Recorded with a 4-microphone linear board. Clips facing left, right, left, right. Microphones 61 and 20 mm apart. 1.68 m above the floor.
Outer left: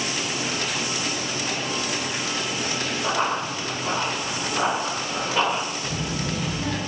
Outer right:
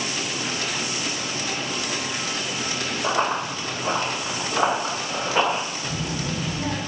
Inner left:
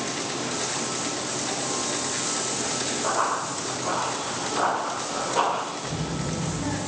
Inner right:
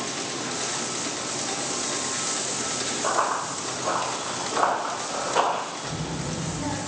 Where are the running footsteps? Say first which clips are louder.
Outer right 2 dB, inner right 1 dB; 20° right (ahead or behind), 2.5 m; by 5.6 s 30° right (ahead or behind), 3.5 m.